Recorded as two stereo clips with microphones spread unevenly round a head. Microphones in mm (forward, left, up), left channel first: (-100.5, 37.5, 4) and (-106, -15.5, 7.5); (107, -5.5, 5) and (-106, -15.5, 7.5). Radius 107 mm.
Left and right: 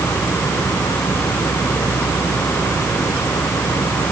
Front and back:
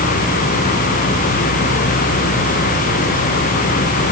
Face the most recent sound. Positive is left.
No sound to turn to.